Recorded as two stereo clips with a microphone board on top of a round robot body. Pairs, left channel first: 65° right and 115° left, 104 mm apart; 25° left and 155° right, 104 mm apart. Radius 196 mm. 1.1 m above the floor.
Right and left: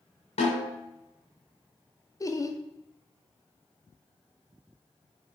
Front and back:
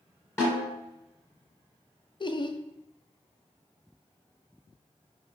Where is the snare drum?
45° right, 1.3 m.